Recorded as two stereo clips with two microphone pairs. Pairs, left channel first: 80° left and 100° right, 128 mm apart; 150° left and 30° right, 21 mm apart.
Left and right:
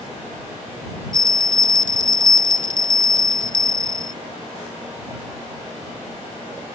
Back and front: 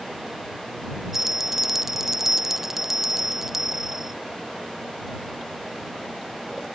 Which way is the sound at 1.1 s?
105° right.